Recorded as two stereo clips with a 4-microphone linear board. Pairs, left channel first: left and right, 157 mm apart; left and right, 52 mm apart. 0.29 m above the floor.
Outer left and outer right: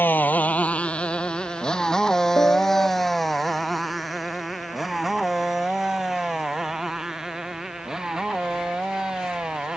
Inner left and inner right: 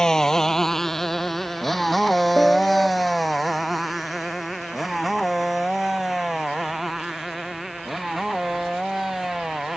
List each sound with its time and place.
0.0 s a motorcycle: 15° left (ahead or behind); by 9.8 s 5° right (ahead or behind)
2.4 s a piano: 15° left (ahead or behind)